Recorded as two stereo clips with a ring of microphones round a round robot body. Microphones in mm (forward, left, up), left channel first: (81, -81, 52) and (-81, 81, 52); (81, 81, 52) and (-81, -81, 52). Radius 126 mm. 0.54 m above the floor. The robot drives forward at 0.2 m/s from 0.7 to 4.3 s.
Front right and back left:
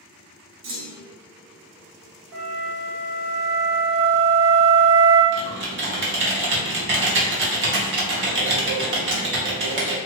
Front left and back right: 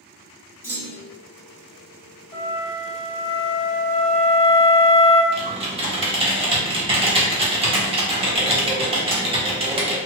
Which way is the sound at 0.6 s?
125° left.